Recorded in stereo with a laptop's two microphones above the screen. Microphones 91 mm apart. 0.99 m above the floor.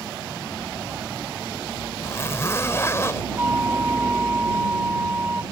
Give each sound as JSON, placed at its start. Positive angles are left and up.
{"t": 2.0, "sound": "a zipper", "side_deg": 30}
{"t": 3.4, "sound": "a flute", "side_deg": -20}